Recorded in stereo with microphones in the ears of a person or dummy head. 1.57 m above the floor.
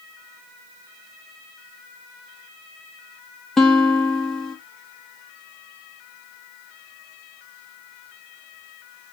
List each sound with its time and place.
3.6 s a guitar: centre (ahead or behind), 0.8 m